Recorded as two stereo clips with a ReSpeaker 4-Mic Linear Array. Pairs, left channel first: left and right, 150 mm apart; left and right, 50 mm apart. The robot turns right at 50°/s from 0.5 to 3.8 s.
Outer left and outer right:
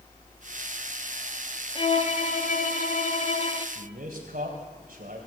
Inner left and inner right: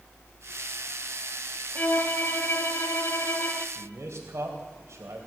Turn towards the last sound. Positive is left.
turn(degrees=-75)  # may be behind; listen again after turning